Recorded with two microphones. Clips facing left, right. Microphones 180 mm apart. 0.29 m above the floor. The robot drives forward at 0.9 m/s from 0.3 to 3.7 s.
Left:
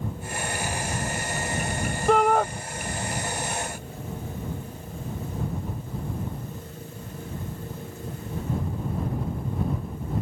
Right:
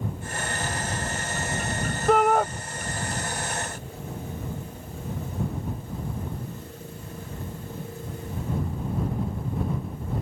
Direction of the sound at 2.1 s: Centre (ahead or behind).